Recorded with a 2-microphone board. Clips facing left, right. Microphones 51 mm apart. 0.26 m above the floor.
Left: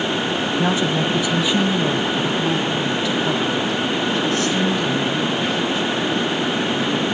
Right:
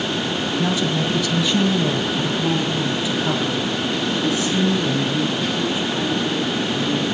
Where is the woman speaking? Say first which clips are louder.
Left 2 dB; 30° left (ahead or behind), 1.7 m; by 7.0 s 20° right (ahead or behind), 7 m.